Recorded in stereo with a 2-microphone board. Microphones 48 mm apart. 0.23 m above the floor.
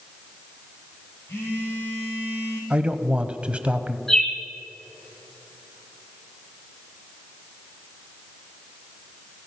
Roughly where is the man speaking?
Right.